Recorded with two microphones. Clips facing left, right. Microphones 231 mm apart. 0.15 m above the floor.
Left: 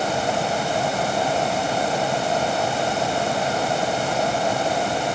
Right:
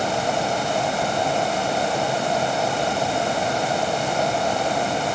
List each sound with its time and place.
Only background noise.